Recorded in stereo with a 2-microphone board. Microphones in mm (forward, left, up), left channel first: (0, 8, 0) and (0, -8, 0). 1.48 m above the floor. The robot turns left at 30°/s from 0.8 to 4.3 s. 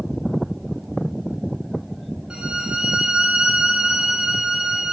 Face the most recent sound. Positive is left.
turn(degrees=-125)